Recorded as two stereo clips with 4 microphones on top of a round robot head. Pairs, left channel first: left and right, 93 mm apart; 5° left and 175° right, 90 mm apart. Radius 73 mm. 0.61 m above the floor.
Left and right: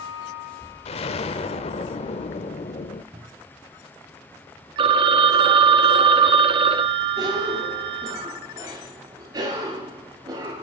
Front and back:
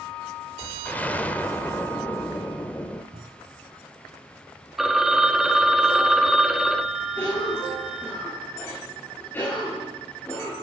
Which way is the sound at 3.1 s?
140° right.